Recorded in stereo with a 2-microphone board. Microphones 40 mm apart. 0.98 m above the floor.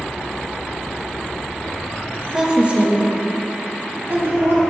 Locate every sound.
2.3 s a woman speaking: 15° right (ahead or behind), 1.3 m; by 4.6 s 70° right (ahead or behind), 2 m